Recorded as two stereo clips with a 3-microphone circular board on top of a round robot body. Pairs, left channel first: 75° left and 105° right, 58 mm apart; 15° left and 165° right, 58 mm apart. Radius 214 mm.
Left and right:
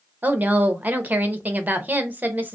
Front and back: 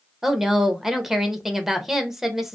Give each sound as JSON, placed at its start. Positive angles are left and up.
{"t": 0.2, "sound": "a woman speaking", "azimuth_deg": -85, "distance_m": 0.8}